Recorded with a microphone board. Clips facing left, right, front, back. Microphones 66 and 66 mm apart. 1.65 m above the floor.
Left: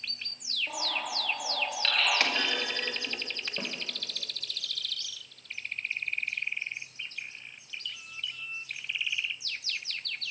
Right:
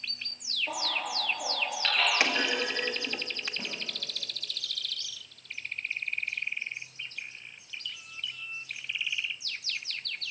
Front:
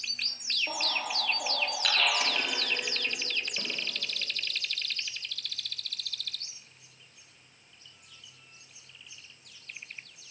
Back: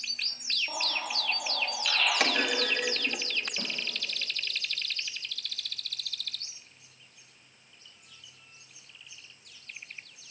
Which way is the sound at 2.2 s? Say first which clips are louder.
Right 2 dB, back 4 dB; 160° right.